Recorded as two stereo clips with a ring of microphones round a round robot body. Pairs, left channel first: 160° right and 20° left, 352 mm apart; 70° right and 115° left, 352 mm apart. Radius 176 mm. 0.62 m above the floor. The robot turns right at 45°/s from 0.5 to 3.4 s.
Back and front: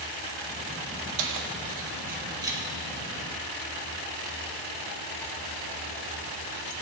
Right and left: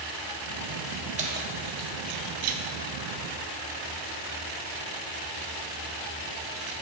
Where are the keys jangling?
45° left, 0.7 m; by 6.7 s 145° left, 0.7 m.